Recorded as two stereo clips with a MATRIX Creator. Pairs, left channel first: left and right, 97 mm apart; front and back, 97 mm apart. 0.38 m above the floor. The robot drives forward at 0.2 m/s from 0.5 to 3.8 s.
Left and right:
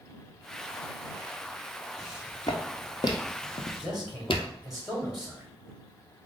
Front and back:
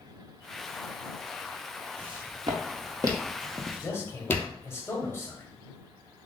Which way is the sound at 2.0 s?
145° left.